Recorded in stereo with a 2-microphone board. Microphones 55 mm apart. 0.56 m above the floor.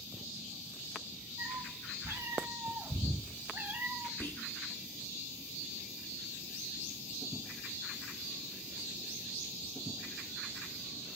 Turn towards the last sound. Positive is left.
turn(degrees=40)  # may be behind; listen again after turning